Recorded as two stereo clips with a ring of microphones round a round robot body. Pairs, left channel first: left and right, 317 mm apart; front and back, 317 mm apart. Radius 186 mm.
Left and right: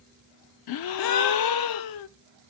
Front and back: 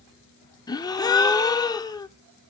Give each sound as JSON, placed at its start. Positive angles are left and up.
{"t": 0.7, "sound": "a gasp", "azimuth_deg": 80, "distance_m": 0.6}